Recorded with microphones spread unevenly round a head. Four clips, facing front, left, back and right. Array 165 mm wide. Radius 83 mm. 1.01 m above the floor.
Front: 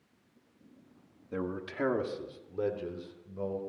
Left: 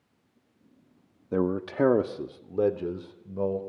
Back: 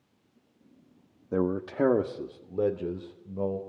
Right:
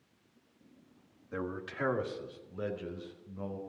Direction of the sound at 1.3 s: 125° left.